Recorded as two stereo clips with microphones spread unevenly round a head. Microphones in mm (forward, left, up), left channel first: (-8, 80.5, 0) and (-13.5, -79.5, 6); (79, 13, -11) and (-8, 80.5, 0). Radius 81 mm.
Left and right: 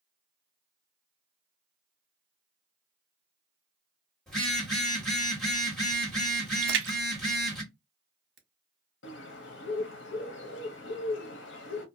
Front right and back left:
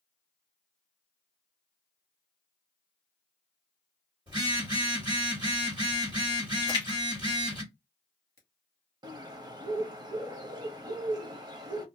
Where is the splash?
100° right, 0.9 m.